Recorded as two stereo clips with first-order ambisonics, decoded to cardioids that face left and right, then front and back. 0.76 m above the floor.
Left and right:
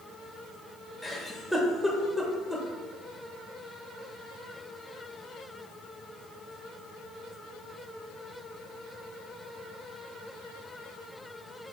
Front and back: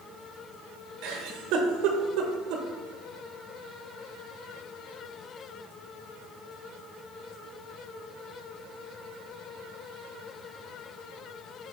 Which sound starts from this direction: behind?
A giggle, at 1.0 s.